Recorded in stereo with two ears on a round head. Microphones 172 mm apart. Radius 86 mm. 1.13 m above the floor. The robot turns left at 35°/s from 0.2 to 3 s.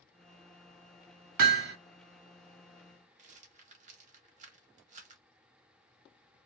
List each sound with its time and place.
1.4 s hammering: 55° right (ahead or behind), 1.1 m; by 1.8 s 65° right (ahead or behind), 1.1 m
3.2 s a rattle: 40° right (ahead or behind), 0.8 m